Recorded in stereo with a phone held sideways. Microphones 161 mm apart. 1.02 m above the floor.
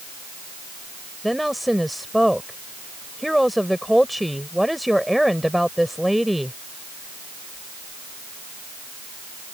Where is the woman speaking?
Centre (ahead or behind).